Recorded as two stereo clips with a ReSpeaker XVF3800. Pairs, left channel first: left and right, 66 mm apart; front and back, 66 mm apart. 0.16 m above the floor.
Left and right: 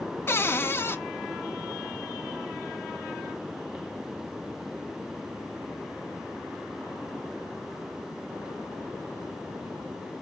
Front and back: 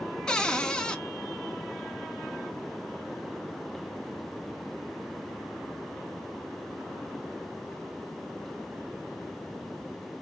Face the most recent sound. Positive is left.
turn(degrees=70)